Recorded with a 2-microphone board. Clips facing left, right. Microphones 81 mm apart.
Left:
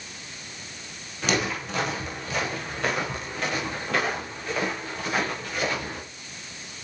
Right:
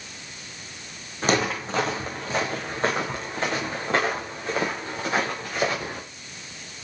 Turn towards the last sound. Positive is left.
turn(degrees=-30)  # may be behind; listen again after turning